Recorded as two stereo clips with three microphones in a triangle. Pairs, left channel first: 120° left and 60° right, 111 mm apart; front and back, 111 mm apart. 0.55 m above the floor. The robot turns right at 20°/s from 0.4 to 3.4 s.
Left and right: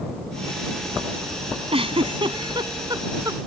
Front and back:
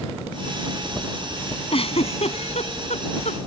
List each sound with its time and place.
1.7 s a giggle: 30° right; by 3.4 s 5° left